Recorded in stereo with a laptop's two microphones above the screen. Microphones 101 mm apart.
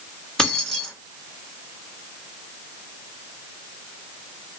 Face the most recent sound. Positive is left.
turn(degrees=5)  # may be behind; listen again after turning